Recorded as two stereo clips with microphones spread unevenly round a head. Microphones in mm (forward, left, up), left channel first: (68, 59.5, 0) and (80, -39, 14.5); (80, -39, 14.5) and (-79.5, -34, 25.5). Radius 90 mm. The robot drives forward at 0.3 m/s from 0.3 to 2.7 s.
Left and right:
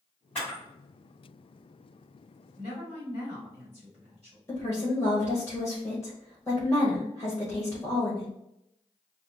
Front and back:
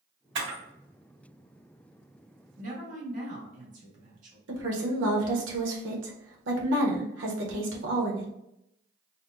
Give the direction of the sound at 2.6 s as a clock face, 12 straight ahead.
5 o'clock.